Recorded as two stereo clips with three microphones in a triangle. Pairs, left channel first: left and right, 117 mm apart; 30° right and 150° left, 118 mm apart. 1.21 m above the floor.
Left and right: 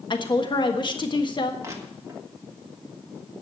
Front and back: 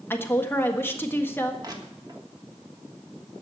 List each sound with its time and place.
0.1 s a woman speaking: 40° left, 1.5 m
1.6 s crushing: 155° right, 1.6 m